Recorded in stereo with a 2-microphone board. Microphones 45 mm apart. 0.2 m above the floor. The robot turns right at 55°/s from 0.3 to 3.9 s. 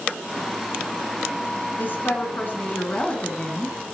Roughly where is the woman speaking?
Left.